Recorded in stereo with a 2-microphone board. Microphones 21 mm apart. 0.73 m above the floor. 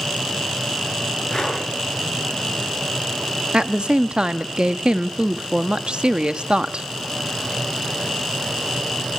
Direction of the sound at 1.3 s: 30° left (ahead or behind).